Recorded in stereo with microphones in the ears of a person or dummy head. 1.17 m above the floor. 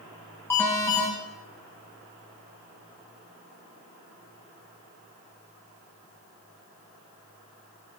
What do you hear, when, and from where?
0.5 s an alarm: 15° left (ahead or behind), 5 m